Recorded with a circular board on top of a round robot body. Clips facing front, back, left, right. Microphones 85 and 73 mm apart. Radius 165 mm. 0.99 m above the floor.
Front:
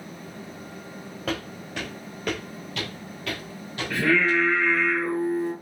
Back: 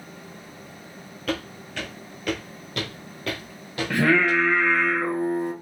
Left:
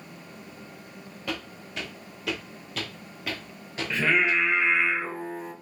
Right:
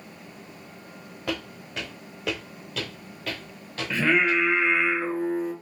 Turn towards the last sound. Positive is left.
turn(degrees=180)